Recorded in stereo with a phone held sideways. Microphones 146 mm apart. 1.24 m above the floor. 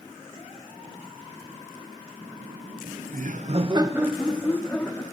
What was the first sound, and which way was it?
Laughter, 55° right (ahead or behind).